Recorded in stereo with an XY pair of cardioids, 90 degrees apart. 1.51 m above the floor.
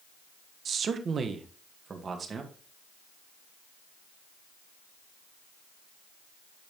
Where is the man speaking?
55° right, 1.1 m; by 2.5 s 40° right, 2.5 m.